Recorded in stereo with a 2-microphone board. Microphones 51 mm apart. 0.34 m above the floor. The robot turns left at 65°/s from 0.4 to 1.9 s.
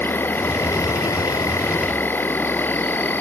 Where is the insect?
135° left; by 3.2 s 40° left.